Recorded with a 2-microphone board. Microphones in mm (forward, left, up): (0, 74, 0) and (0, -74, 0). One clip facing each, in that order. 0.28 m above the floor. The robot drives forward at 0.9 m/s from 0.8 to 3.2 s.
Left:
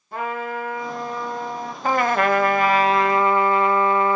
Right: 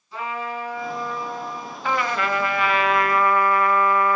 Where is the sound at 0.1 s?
50° left (ahead or behind), 2 m; by 1.7 s 65° left (ahead or behind), 1.8 m.